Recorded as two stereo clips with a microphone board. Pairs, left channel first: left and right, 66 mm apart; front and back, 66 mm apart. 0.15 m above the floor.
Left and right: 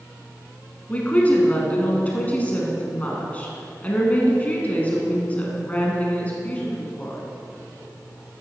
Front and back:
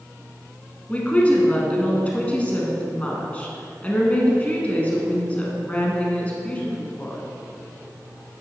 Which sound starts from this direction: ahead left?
A woman speaking, at 0.9 s.